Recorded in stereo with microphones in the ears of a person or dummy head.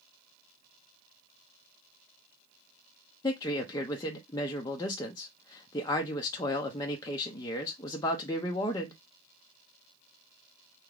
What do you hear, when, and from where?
3.2 s a man speaking: 25° left (ahead or behind), 0.6 m